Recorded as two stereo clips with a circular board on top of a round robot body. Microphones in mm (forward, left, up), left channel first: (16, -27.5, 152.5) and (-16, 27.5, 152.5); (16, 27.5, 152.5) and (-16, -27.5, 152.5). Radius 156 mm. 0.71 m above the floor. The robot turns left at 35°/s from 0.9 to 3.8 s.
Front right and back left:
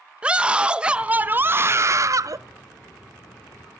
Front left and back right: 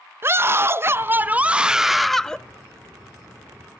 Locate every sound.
0.2 s a scream: 170° right, 0.7 m; by 2.4 s 140° left, 0.7 m